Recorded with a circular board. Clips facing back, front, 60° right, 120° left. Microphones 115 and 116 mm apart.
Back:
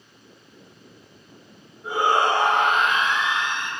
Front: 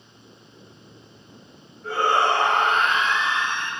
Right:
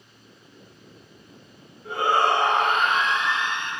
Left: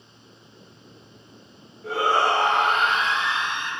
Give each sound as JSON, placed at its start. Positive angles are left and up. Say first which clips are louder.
{"t": 1.8, "sound": "a shout", "louder": "even, even", "azimuth_deg": 105, "distance_m": 2.0}